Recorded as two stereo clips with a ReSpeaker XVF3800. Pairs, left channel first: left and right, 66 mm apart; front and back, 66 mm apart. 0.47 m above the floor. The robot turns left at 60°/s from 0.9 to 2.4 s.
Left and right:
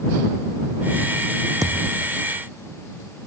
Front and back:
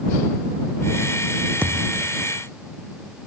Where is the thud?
115° right; by 2.1 s 140° right.